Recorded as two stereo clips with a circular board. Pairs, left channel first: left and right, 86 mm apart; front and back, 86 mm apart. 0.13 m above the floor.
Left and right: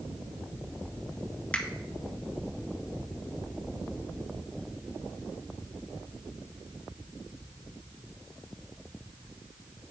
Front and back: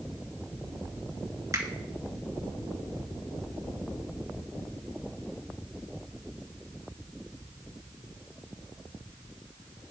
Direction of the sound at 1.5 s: 160° left.